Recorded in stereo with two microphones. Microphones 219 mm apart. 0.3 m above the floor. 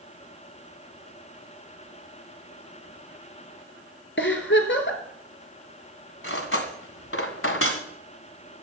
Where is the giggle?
55° left (ahead or behind), 2 m.